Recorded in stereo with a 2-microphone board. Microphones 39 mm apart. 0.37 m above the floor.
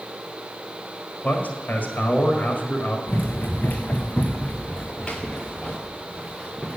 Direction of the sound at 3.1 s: 60° left (ahead or behind).